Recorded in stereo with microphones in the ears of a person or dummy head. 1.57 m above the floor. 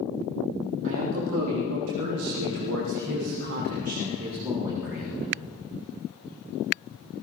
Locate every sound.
0.8 s a man speaking: 65° right (ahead or behind), 4 m; by 5.3 s 5° right (ahead or behind), 3 m